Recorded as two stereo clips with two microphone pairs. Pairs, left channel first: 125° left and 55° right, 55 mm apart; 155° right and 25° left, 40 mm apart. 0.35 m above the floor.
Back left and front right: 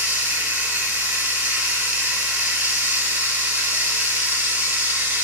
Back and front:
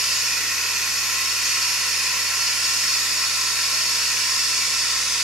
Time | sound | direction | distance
0.0 | running water | 40° right | 0.9 m